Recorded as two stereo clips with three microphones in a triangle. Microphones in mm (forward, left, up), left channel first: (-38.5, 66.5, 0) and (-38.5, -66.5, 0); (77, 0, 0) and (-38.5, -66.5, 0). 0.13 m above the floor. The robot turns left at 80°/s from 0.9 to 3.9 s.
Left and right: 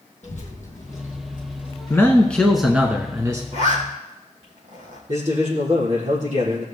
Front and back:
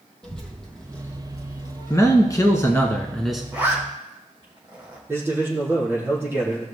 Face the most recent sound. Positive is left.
turn(degrees=-80)